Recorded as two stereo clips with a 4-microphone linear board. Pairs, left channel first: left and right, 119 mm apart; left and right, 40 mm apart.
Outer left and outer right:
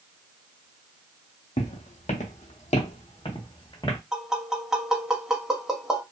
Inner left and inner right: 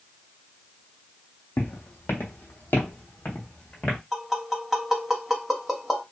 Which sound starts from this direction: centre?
Tapping, at 4.1 s.